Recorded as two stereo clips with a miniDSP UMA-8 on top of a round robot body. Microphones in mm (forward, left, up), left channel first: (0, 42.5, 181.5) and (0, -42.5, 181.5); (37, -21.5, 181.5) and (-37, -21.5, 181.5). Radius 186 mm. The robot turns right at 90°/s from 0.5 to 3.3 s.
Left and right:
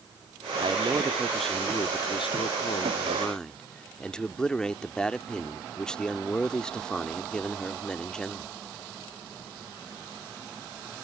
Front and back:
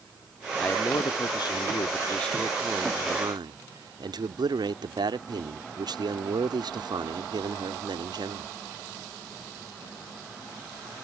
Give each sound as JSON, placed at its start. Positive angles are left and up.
{"t": 0.6, "sound": "a man speaking", "azimuth_deg": -70}